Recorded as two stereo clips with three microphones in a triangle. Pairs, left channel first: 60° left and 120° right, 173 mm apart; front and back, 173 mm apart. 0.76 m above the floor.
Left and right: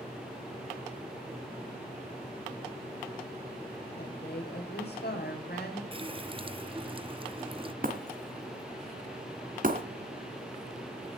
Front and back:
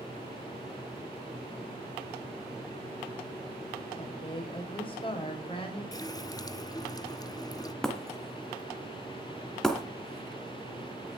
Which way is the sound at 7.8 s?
85° right.